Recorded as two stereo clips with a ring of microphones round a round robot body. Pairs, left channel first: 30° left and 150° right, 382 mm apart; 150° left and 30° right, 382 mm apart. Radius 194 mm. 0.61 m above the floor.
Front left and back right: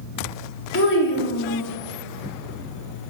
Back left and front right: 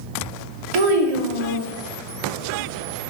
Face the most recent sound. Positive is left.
turn(degrees=-30)